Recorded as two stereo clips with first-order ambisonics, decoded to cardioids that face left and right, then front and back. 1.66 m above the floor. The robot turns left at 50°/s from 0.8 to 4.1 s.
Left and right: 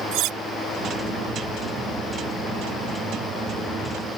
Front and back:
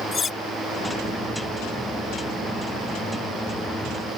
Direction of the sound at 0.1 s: 65° right.